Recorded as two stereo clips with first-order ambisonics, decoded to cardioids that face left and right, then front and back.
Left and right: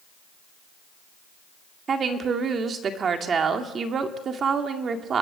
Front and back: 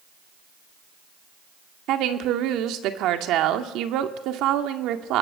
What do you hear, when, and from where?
1.9 s a woman speaking: 150° right, 1.9 m